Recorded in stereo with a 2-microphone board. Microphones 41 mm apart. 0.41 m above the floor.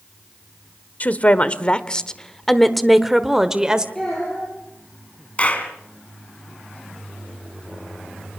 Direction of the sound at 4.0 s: 10° left (ahead or behind).